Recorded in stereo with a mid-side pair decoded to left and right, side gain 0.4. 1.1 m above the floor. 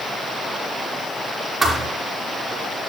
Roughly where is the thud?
Ahead right.